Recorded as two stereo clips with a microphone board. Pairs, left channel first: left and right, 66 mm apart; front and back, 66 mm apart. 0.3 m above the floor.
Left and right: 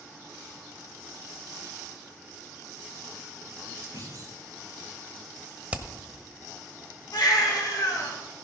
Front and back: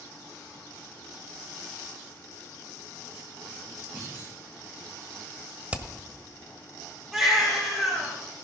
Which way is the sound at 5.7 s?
135° right.